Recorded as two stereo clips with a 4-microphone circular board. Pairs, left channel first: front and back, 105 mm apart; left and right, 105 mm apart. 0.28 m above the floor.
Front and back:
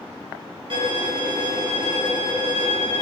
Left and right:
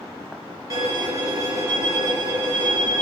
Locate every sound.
0.7 s a violin: 150° right, 0.9 m